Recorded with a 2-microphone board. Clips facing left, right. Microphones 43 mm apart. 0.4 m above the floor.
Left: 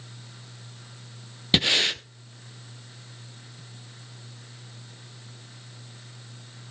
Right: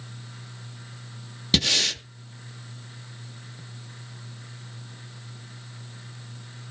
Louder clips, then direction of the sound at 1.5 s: Left 2 dB; 20° left (ahead or behind).